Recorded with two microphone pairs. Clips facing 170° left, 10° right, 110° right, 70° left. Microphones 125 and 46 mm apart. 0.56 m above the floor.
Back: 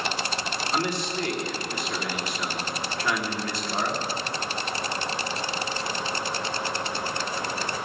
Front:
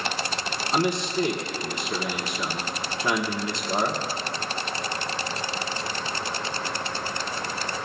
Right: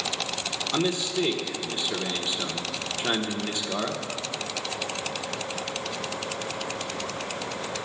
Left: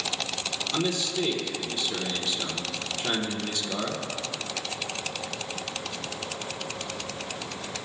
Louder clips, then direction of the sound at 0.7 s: Front 5 dB, right 2 dB; 65° right.